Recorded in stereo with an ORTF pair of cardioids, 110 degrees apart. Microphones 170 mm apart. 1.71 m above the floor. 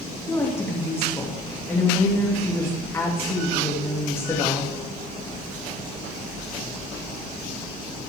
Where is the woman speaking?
15° left, 3 m.